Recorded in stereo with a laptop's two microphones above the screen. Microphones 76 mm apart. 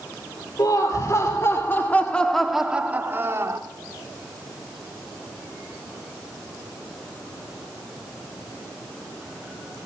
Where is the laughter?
55° left (ahead or behind), 3 m; by 3.6 s 45° right (ahead or behind), 2 m.